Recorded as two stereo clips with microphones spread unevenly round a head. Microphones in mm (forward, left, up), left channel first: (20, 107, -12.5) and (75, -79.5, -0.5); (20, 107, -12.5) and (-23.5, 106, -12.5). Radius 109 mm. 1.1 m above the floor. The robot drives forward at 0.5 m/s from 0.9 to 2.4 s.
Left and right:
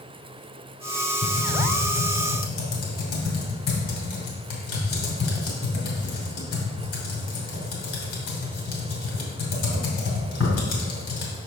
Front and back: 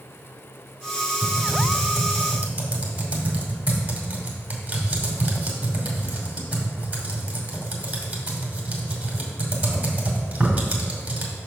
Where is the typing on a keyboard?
120° left, 1.8 m; by 11.3 s 135° left, 2 m.